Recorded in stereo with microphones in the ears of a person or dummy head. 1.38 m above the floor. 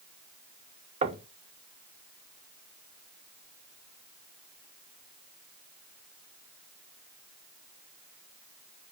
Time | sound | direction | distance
1.0 | knocking | 35° right (ahead or behind) | 1.2 m